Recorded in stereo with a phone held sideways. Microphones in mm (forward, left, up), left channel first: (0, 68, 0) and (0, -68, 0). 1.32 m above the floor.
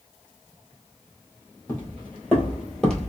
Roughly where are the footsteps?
Centre.